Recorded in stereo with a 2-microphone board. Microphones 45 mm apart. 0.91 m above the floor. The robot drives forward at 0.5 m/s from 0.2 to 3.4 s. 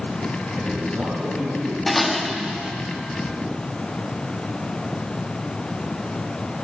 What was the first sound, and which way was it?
A man speaking, 20° right (ahead or behind).